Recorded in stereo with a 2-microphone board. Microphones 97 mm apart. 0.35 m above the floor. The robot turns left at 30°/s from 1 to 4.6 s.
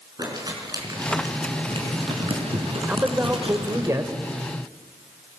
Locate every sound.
0.2 s crumpling: 40° right (ahead or behind), 4 m; by 3.9 s 50° right (ahead or behind), 4 m
2.9 s a man speaking: 30° right, 1.4 m; by 4.1 s 65° right, 1.4 m